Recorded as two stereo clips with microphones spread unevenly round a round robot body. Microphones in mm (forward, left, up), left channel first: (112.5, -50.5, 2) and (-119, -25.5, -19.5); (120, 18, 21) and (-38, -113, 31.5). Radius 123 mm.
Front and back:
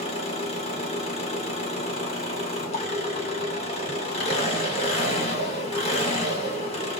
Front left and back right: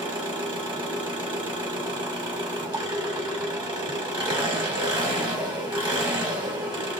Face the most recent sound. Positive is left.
turn(degrees=-70)